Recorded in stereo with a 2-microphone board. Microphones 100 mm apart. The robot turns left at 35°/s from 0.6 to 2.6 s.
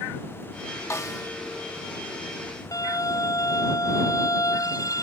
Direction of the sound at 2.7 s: 40° left (ahead or behind).